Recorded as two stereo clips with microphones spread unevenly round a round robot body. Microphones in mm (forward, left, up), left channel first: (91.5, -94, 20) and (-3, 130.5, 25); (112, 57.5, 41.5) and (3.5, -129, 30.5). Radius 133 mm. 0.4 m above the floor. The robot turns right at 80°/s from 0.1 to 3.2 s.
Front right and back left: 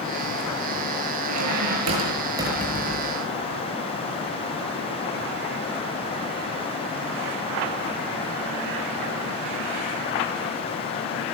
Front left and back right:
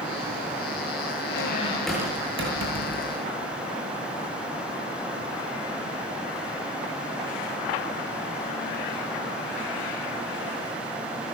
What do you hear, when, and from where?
1.3 s a squeak: 100° left, 6 m; by 3.3 s 105° right, 6 m